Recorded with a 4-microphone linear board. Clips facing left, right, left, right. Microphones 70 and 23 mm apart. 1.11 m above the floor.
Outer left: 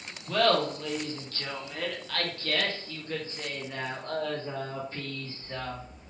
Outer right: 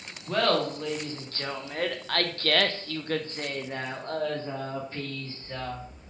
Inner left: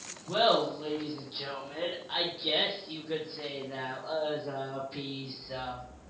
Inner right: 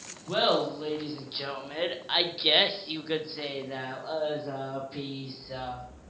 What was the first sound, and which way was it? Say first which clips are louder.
Laughter: even, even; 30° right (ahead or behind).